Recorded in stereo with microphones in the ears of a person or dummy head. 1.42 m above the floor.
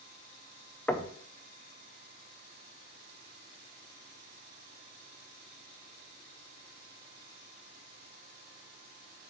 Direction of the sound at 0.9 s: 5° left (ahead or behind).